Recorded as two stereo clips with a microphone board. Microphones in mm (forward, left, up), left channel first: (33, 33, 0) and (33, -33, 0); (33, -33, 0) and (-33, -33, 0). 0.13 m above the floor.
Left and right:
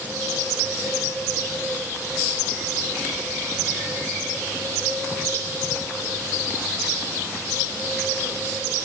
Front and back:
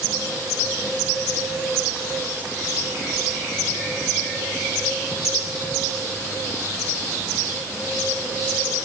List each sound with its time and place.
Only background noise.